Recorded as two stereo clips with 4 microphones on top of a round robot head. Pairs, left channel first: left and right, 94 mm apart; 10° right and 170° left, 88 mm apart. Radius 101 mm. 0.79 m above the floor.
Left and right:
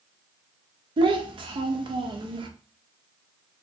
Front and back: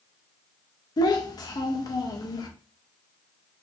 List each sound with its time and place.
1.0 s a child speaking: 55° right, 0.5 m